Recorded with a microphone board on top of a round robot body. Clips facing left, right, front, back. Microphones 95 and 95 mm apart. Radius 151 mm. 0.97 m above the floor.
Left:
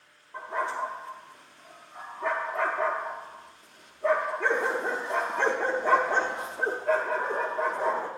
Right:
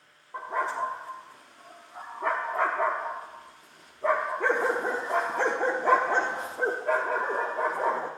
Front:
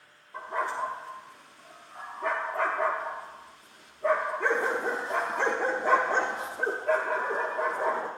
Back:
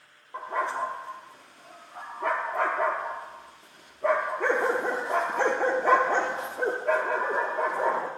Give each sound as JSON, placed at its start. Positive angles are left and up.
{"t": 0.3, "sound": "a dog barking", "azimuth_deg": -140, "distance_m": 0.5}